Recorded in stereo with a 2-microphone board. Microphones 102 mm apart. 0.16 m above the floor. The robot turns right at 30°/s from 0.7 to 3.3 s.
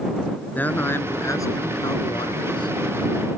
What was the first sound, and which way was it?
A man speaking, 25° left.